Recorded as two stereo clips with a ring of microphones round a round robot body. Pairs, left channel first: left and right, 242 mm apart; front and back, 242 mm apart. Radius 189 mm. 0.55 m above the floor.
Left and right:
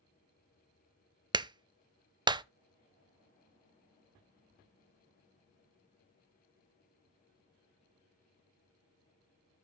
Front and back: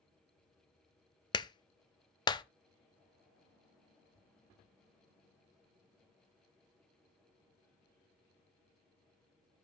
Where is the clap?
40° right, 0.6 m.